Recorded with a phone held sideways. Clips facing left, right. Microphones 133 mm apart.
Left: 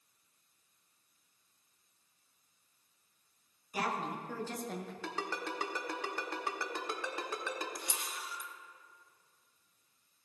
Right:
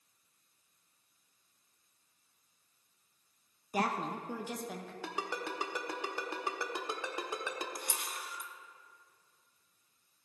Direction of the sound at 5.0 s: 15° right (ahead or behind).